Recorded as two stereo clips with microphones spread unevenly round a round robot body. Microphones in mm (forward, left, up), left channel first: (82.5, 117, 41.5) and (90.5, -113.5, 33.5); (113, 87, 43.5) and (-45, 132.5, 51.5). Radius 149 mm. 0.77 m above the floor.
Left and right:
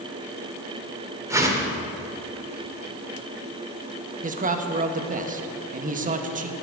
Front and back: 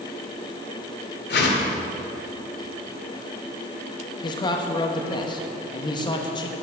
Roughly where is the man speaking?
Ahead right.